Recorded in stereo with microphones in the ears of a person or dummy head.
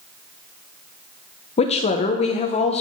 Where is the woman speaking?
35° left (ahead or behind), 0.7 m.